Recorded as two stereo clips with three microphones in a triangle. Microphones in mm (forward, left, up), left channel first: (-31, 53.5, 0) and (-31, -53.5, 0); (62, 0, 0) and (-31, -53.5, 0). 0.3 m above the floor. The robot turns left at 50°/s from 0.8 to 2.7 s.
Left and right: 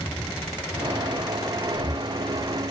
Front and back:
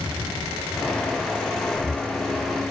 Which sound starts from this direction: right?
Breathing, at 1.7 s.